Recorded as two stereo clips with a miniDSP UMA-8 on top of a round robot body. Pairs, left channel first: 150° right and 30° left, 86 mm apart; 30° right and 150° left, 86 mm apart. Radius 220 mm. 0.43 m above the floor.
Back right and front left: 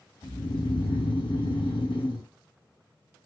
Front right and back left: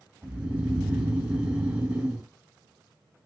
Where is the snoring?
140° right, 1.2 m.